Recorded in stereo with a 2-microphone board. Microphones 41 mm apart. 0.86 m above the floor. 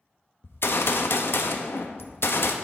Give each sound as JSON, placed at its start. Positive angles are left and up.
{"t": 0.4, "sound": "a gunshot", "side_deg": 65, "distance_m": 0.5}